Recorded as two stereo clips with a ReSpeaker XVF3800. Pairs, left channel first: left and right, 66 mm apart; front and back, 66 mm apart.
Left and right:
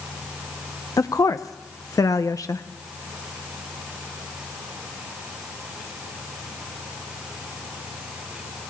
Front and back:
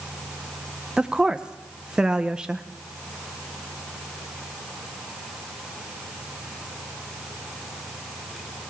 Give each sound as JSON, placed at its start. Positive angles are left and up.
{"t": 1.0, "sound": "a woman speaking", "azimuth_deg": 105, "distance_m": 0.6}